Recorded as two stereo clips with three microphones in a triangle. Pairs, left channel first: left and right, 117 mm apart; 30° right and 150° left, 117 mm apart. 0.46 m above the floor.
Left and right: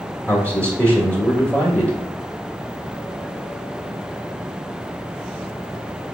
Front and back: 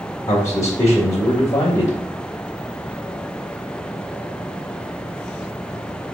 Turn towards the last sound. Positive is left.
turn(degrees=15)